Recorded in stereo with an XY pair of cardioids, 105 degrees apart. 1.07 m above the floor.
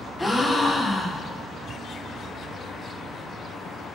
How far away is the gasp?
About 0.5 m.